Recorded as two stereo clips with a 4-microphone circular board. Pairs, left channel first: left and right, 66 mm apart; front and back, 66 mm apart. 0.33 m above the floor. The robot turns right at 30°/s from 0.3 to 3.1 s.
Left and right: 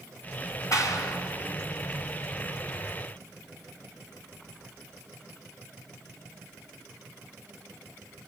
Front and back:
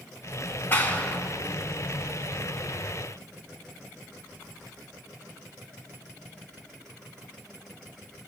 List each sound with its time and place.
0.7 s a clap: 60° left, 2 m; by 1.2 s 75° left, 2 m